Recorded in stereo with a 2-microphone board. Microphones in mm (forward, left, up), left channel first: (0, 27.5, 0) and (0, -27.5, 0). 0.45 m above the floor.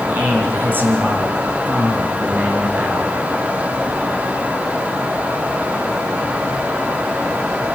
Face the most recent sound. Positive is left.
turn(degrees=-25)  # may be behind; listen again after turning